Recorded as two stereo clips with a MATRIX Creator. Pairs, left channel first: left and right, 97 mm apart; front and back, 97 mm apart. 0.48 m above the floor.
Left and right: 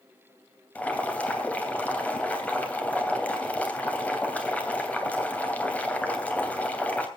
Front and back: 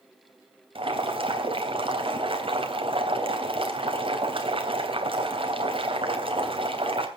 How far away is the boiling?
About 3 m.